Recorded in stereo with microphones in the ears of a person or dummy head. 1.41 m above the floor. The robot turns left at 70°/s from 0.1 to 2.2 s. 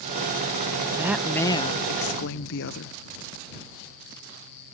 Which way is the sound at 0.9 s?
160° right.